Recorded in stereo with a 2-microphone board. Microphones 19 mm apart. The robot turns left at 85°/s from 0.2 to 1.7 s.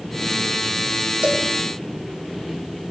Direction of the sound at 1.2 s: 75° right (ahead or behind).